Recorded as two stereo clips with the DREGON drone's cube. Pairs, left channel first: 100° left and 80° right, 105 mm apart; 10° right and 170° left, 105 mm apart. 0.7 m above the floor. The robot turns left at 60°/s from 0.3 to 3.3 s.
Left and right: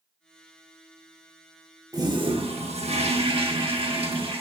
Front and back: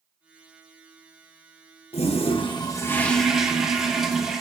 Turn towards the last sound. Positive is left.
turn(degrees=-105)